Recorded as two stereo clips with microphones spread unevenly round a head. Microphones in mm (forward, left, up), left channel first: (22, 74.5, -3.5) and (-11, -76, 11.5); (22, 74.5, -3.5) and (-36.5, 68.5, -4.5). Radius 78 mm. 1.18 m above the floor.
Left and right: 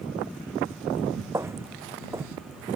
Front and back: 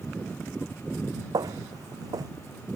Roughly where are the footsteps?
Behind.